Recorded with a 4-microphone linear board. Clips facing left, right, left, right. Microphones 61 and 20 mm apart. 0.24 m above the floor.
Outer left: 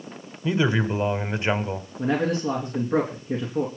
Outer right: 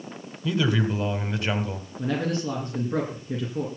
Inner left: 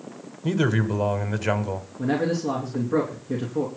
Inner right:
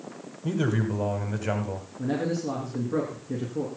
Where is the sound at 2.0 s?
25° left (ahead or behind), 3 m.